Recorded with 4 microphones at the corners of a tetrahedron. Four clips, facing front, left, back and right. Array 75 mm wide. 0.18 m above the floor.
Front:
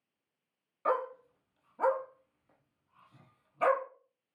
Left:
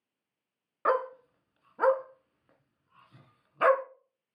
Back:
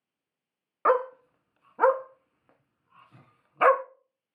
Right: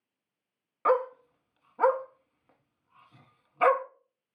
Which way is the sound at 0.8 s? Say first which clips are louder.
Right 2 dB, back 8 dB; 175° left.